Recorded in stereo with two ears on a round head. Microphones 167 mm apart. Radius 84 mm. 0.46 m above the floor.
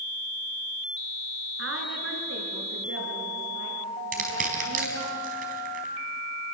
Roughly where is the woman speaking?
Right.